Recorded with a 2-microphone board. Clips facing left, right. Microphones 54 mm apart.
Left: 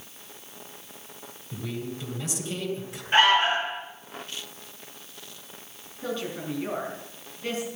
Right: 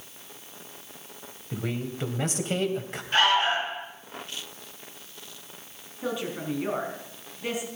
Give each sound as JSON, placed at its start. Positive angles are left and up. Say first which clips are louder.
{"t": 1.5, "sound": "a man speaking", "louder": "right 2 dB", "side_deg": -45, "distance_m": 2.5}
{"t": 3.1, "sound": "an alarm", "louder": "left 2 dB", "side_deg": 25, "distance_m": 8.0}
{"t": 6.0, "sound": "a woman speaking", "louder": "right 1 dB", "side_deg": -10, "distance_m": 4.5}